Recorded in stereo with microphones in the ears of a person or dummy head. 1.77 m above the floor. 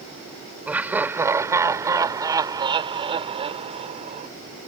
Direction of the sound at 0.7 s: 10° right (ahead or behind).